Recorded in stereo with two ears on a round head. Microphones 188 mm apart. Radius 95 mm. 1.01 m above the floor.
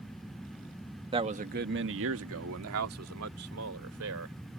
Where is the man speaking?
25° right (ahead or behind); by 4.4 s 70° right (ahead or behind).